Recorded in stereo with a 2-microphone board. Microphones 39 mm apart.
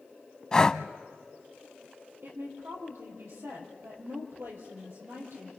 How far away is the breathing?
About 0.6 m.